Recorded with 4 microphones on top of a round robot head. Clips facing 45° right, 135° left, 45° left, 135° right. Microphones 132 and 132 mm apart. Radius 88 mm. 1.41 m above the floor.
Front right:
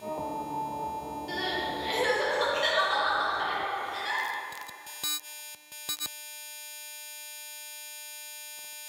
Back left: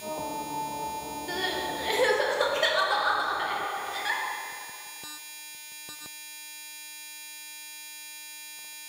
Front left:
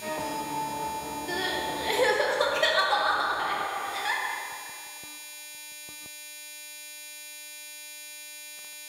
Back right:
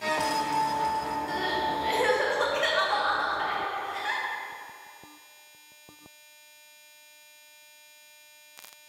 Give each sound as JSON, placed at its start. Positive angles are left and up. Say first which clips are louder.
{"t": 1.3, "sound": "crying", "louder": "back left 1 dB, even", "azimuth_deg": 105, "distance_m": 0.8}